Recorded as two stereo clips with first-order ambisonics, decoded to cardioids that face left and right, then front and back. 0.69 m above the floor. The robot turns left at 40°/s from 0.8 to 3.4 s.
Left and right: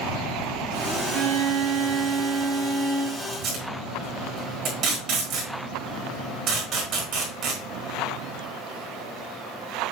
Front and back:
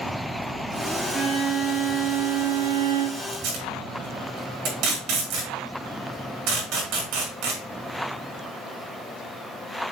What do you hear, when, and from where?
1.1 s a violin: 85° right, 2 m; by 3.2 s 165° right, 2 m
3.3 s tape being pulled: 145° right, 4.5 m; by 7.6 s 150° right, 4.5 m